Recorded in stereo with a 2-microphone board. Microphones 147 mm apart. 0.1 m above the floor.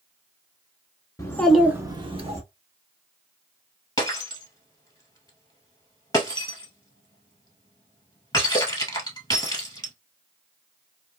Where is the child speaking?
20° left (ahead or behind), 0.7 m; by 2.4 s 45° right (ahead or behind), 1.0 m.